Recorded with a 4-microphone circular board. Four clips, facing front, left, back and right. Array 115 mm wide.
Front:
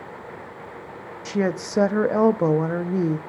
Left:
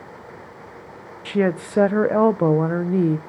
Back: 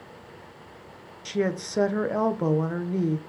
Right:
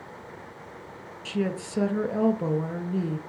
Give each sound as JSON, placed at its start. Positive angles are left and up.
{"t": 1.2, "sound": "a woman speaking", "azimuth_deg": 65, "distance_m": 0.5}